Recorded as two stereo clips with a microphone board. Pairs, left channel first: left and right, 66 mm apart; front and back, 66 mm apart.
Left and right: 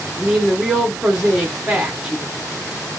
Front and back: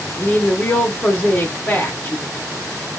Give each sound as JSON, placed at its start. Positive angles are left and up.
{"t": 0.2, "sound": "a woman speaking", "azimuth_deg": -5, "distance_m": 0.9}